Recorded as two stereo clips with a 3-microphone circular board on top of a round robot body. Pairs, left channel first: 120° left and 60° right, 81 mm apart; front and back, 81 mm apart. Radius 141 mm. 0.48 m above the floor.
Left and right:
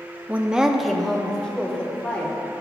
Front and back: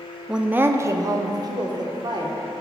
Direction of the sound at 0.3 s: 105° right.